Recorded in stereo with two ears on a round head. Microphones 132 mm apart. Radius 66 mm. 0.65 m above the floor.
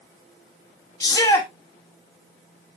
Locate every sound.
1.0 s a shout: 25° left (ahead or behind), 1.1 m